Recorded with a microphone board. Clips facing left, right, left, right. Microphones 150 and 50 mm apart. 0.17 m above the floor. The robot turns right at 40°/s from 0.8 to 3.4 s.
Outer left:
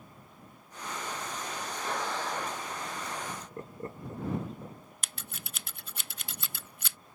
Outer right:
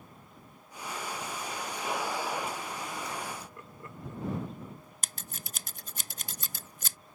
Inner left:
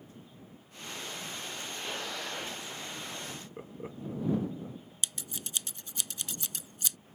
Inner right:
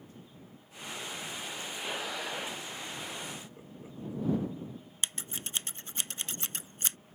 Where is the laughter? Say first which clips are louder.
Outer left 2 dB, inner left 1 dB; 30° left (ahead or behind); by 4.9 s 35° left (ahead or behind).